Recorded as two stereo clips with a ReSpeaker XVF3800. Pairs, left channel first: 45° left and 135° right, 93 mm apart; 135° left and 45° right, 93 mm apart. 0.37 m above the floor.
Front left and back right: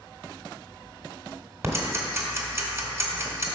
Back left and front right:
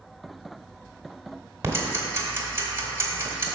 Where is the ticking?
90° right, 1.3 m.